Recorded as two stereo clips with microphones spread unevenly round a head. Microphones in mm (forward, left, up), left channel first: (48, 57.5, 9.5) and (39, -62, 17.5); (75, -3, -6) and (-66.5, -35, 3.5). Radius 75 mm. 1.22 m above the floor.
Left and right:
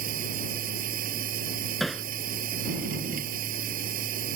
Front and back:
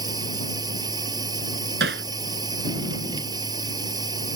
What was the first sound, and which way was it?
A machine running, 105° right.